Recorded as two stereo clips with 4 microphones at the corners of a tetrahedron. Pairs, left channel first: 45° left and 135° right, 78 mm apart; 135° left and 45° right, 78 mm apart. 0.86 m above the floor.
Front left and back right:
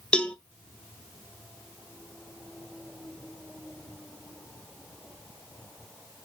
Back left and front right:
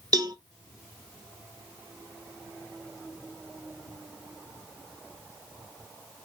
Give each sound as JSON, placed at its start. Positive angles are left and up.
{"t": 0.1, "sound": "a cowbell", "azimuth_deg": -30, "distance_m": 0.6}